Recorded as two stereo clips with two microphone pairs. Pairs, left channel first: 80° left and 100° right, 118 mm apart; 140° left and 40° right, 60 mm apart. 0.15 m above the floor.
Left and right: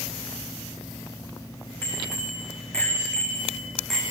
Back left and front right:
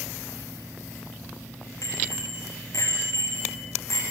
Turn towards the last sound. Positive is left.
turn(degrees=170)